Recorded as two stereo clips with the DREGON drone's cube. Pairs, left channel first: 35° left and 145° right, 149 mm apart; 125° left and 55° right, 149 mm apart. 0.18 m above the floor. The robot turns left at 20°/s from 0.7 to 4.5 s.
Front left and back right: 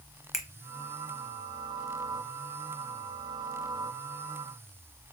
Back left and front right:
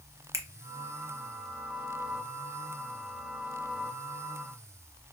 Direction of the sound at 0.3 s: 60° right.